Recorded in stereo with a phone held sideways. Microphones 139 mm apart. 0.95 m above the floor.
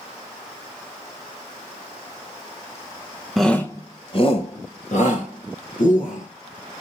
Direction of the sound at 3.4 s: Centre (ahead or behind).